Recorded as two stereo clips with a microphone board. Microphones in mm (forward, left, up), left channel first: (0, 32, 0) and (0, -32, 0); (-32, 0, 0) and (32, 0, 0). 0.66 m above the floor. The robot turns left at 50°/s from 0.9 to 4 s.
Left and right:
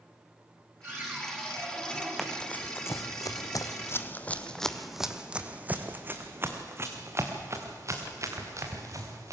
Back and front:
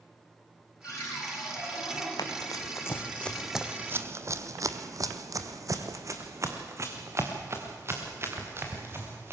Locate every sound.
0.8 s a cupboard door: 155° right, 6 m; by 2.1 s 150° left, 6 m
2.2 s running footsteps: 175° left, 2 m; by 9.3 s 55° right, 4 m